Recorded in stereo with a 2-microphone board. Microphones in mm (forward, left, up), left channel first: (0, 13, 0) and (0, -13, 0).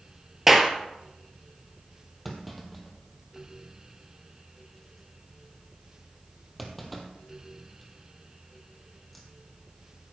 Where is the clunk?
5° left (ahead or behind), 1.8 m.